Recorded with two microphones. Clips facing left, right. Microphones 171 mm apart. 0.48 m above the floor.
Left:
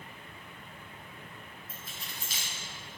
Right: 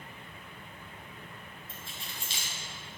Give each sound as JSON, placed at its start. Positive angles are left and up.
{"t": 1.7, "sound": "keys jangling", "side_deg": -30, "distance_m": 2.0}